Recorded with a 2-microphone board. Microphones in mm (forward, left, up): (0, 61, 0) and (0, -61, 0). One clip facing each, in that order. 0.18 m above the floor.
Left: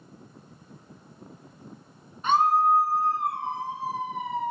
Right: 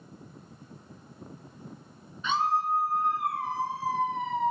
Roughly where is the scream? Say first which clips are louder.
Left 6 dB; left.